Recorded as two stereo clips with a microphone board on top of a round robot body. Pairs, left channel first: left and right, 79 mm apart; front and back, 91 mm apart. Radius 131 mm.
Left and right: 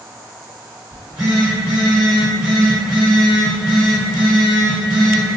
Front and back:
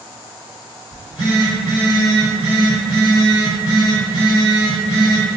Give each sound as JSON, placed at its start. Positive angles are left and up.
{"t": 0.9, "sound": "a phone buzzing", "azimuth_deg": -15, "distance_m": 1.8}